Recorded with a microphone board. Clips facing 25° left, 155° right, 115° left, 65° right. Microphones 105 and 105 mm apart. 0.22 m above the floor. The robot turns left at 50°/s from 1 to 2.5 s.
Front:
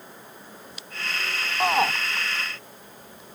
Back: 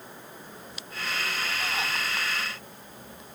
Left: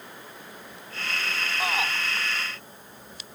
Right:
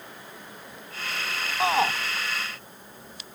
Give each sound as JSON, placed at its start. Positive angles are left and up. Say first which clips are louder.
{"t": 1.6, "sound": "a shout", "louder": "front 15 dB, right 7 dB", "azimuth_deg": 0}